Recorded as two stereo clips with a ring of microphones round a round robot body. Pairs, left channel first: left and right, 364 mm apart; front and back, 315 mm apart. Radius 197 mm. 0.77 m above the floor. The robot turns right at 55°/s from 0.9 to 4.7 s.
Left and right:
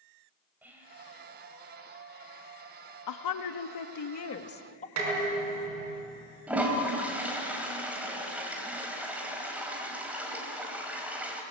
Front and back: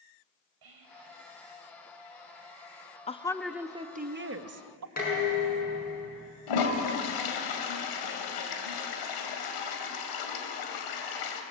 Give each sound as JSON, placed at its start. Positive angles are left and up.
{"t": 0.6, "sound": "whispering", "azimuth_deg": -175, "distance_m": 4.0}
{"t": 3.1, "sound": "a woman speaking", "azimuth_deg": 65, "distance_m": 1.4}
{"t": 5.0, "sound": "dishes clattering", "azimuth_deg": -65, "distance_m": 5.5}
{"t": 6.5, "sound": "a toilet flushing", "azimuth_deg": -5, "distance_m": 2.5}